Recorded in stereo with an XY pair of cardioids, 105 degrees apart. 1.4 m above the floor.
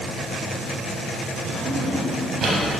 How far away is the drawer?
About 4 m.